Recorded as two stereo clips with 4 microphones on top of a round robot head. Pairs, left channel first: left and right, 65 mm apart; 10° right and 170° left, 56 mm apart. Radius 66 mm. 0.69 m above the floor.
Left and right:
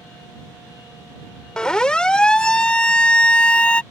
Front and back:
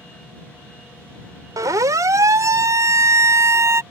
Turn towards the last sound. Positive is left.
turn(degrees=160)